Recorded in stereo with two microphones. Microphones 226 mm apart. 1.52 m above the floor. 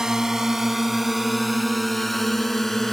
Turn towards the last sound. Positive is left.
turn(degrees=0)  # may be behind; listen again after turning